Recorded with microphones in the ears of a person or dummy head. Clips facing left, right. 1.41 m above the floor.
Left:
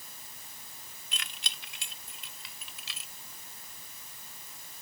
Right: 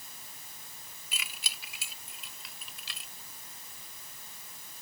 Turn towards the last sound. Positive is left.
turn(degrees=5)  # may be behind; listen again after turning